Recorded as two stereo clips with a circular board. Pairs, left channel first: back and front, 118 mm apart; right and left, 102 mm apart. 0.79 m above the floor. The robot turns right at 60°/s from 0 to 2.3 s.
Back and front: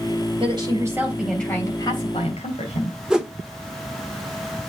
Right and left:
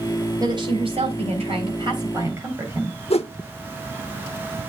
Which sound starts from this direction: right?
A whoosh, at 3.1 s.